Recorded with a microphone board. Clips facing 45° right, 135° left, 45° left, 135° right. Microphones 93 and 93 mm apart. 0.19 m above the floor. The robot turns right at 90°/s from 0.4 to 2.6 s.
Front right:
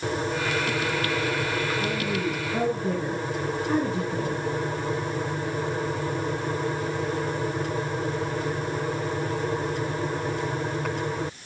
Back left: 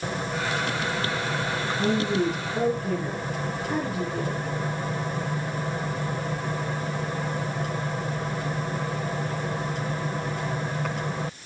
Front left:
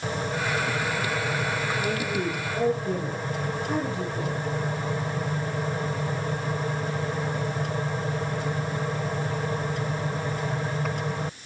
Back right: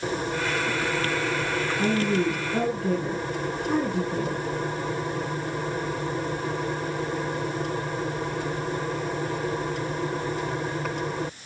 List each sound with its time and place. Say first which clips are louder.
1.8 s a woman speaking: back left 3 dB, back right 4 dB; straight behind, 5 m; by 4.4 s 110° right, 5 m